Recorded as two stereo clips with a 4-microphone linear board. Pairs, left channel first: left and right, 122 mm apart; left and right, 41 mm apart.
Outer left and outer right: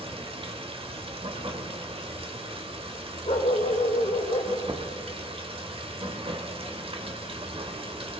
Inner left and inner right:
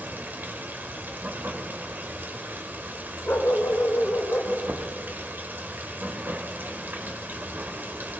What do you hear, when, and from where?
0.0 s running water: 50° right (ahead or behind), 1.2 m
3.3 s a dog barking: 70° left (ahead or behind), 0.9 m
4.7 s knocking: 40° right (ahead or behind), 0.8 m